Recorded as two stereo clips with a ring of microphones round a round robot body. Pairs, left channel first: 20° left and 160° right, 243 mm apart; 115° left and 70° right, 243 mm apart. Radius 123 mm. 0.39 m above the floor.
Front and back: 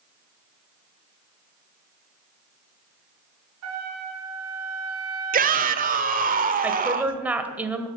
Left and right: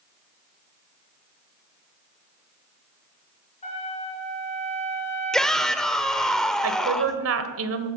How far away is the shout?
About 1.4 m.